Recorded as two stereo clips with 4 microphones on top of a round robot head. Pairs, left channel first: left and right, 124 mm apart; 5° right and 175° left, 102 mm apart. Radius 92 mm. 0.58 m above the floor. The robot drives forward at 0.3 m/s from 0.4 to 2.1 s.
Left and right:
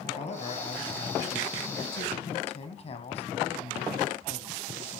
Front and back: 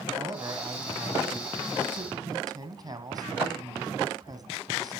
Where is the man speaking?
120° left, 4.5 m; by 5.0 s 125° left, 4.5 m.